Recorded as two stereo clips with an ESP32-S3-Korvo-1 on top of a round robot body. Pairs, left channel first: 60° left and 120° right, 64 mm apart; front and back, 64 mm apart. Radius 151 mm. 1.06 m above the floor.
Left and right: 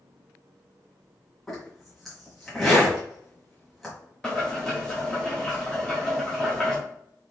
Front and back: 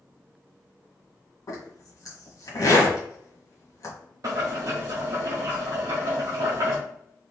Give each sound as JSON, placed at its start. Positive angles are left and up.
{"t": 1.5, "sound": "a zipper", "azimuth_deg": -25, "distance_m": 1.3}
{"t": 4.2, "sound": "boiling", "azimuth_deg": 140, "distance_m": 0.6}